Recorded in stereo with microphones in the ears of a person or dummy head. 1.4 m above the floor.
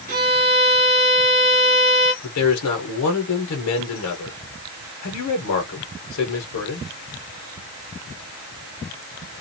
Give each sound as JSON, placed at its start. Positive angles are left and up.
{"t": 0.1, "sound": "a violin", "side_deg": -40, "distance_m": 1.6}
{"t": 2.2, "sound": "a man speaking", "side_deg": 75, "distance_m": 1.0}